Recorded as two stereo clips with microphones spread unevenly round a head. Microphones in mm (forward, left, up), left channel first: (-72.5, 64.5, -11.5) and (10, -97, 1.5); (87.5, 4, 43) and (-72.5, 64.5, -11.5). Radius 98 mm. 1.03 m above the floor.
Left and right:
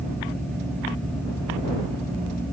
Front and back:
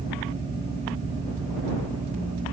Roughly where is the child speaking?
No child speaking in this recording.